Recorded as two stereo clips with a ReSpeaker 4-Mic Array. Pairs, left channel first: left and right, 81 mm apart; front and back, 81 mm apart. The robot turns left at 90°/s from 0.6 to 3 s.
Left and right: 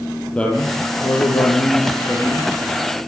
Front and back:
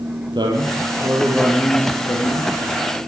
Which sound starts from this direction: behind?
A man speaking, at 0.3 s.